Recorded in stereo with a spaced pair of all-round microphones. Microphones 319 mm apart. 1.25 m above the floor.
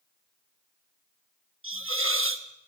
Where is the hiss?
40° right (ahead or behind), 1.0 m.